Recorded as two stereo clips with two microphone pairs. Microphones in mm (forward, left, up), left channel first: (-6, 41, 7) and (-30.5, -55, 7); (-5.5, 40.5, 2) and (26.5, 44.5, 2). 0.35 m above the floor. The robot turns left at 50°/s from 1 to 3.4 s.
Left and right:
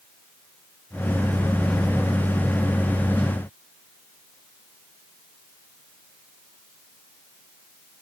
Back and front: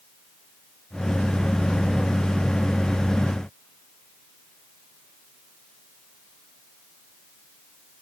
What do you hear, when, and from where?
Only background noise.